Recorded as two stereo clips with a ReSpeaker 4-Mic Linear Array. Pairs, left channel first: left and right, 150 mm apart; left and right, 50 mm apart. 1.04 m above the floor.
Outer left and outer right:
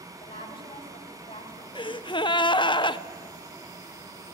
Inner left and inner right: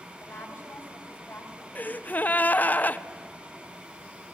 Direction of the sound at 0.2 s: 35° left (ahead or behind).